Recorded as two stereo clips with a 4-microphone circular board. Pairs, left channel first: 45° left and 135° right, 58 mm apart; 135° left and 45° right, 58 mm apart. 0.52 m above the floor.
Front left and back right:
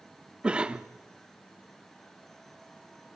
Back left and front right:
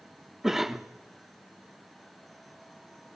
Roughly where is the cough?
Behind right.